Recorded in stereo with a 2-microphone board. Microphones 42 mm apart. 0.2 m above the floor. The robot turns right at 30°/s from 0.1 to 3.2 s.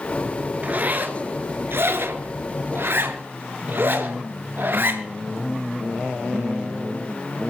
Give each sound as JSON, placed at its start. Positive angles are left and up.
{"t": 0.6, "sound": "a zipper", "side_deg": -35, "distance_m": 2.0}